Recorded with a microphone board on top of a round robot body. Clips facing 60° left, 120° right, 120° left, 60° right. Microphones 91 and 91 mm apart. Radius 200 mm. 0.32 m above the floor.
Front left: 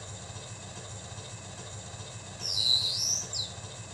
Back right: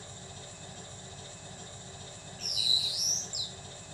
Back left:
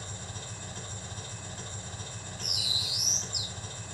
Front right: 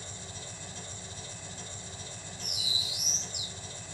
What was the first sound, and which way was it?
An engine running, 75° left.